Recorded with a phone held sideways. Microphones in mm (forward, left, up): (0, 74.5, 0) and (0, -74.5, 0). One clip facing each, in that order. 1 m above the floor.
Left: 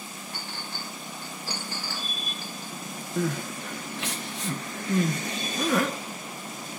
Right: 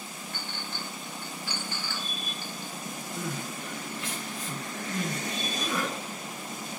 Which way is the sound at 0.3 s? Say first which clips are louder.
Even; 35° left (ahead or behind).